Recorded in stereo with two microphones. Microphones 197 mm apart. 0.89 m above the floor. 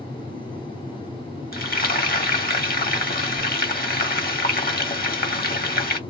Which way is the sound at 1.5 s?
50° left (ahead or behind).